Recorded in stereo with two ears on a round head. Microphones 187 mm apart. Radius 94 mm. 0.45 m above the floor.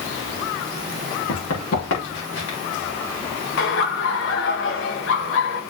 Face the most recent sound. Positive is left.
turn(degrees=60)  # may be behind; listen again after turning